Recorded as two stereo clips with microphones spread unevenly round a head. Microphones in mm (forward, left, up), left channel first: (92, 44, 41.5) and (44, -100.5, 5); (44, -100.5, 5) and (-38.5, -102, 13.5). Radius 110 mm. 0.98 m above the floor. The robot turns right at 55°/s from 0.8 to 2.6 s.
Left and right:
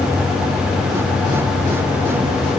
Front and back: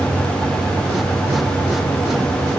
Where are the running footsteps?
I don't hear running footsteps.